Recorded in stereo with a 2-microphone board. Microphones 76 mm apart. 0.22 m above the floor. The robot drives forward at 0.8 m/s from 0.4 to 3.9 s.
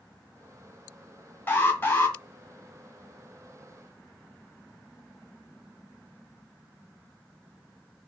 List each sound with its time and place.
1.5 s an alarm: 25° left (ahead or behind), 1.7 m